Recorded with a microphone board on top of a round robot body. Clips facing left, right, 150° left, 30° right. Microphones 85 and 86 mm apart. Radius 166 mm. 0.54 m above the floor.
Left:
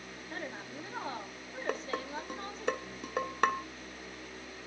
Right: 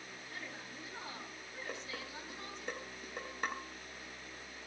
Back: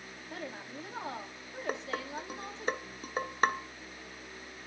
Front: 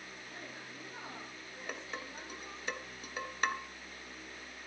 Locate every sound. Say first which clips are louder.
0.3 s a woman speaking: left 8 dB, back 9 dB; 140° left, 6 m
1.7 s dishes clattering: left 11 dB, back 8 dB; 100° left, 1.9 m